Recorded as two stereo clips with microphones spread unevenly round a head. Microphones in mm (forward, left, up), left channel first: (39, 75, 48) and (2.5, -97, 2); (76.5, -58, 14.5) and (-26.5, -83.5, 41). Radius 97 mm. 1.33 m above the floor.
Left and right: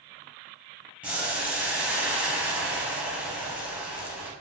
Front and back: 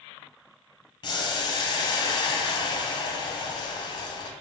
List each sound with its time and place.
1.0 s boiling: 25° right, 0.7 m